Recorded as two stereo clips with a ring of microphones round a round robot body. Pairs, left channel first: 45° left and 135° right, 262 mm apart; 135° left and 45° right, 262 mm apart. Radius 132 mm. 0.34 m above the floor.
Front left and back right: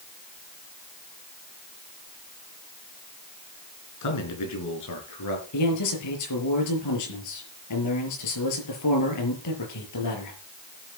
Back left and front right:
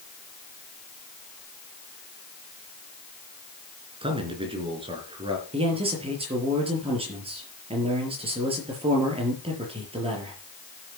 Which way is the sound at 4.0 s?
25° left.